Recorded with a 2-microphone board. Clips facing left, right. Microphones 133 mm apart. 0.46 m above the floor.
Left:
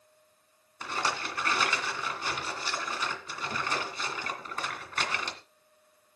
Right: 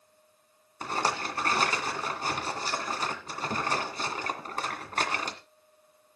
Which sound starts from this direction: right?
A rattle, at 0.8 s.